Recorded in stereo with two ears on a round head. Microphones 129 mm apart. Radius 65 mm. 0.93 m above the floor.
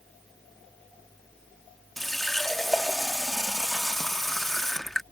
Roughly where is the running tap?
Centre.